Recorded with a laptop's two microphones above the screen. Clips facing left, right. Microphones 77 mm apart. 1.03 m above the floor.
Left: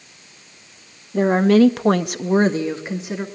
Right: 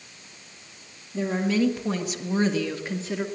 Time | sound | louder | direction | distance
1.1 | a woman speaking | left 10 dB | 55° left (ahead or behind) | 1.8 m